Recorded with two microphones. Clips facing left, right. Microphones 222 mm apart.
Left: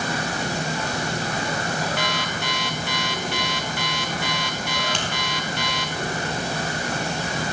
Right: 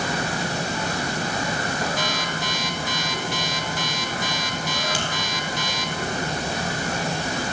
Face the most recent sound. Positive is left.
turn(degrees=-5)  # may be behind; listen again after turning